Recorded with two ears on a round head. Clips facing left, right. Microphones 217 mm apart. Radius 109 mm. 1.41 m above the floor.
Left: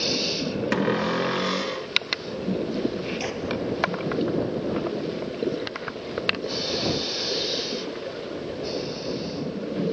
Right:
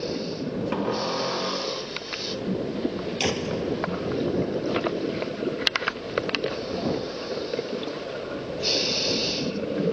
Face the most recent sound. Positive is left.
turn(degrees=-55)  # may be behind; listen again after turning